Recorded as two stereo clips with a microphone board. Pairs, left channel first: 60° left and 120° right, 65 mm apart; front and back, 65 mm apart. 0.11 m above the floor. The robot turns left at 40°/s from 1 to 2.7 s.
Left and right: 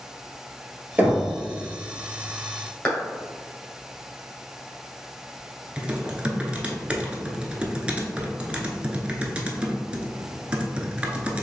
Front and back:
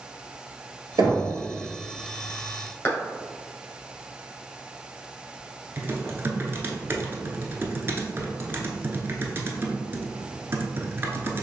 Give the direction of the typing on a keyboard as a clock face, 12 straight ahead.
6 o'clock.